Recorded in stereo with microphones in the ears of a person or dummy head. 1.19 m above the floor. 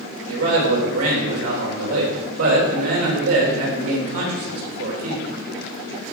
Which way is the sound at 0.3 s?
80° right.